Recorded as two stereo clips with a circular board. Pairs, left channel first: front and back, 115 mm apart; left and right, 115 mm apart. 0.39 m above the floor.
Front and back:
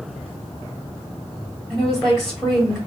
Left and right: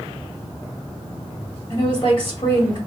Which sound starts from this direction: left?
A woman speaking, at 1.7 s.